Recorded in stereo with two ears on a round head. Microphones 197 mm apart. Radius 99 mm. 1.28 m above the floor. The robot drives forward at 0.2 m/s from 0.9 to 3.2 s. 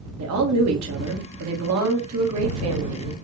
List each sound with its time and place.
0.2 s a woman speaking: 80° right, 1.7 m; by 3.1 s 70° right (ahead or behind), 1.8 m